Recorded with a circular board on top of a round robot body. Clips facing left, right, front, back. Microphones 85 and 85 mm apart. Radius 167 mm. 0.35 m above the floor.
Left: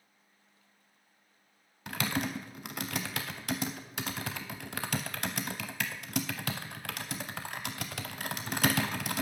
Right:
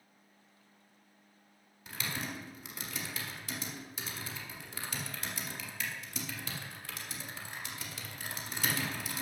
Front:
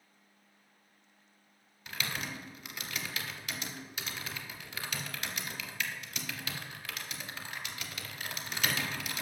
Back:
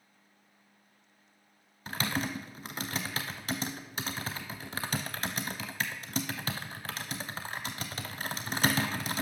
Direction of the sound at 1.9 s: 125° left.